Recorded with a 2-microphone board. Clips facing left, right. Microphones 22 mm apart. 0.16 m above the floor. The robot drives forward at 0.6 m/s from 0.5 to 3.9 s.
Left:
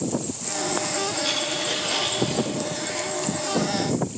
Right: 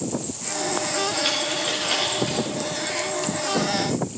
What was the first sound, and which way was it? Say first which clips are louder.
A dropped coin: right 1 dB; 30° right (ahead or behind).